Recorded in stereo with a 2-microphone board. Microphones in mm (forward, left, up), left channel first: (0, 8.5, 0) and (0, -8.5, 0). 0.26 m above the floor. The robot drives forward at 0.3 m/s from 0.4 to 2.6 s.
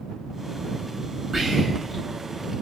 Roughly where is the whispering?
Right.